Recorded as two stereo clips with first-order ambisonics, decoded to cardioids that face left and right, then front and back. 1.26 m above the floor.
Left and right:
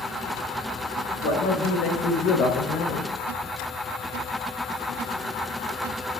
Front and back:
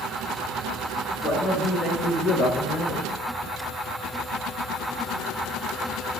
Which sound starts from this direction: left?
A man speaking, at 1.2 s.